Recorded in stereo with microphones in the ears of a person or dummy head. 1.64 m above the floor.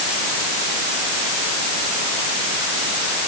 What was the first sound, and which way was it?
Only background noise.